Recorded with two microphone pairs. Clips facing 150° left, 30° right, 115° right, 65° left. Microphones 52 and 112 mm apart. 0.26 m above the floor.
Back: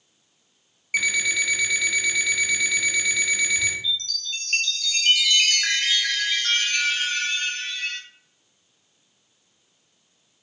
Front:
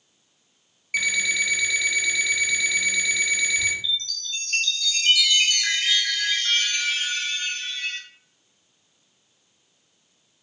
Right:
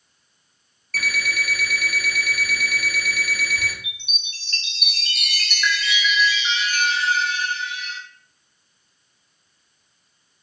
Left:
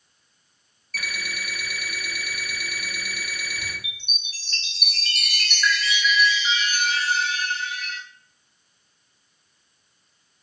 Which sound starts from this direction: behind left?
A chime, at 3.8 s.